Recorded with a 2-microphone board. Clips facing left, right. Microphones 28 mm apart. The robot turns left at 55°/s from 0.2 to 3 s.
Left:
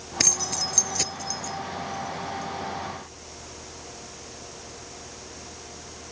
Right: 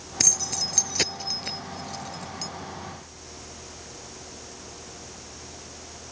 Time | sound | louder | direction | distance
0.2 | keys jangling | left 1 dB | 20° left (ahead or behind) | ?